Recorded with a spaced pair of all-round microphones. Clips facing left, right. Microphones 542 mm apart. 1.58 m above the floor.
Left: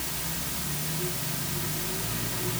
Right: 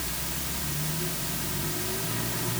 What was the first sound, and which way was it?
Only background noise.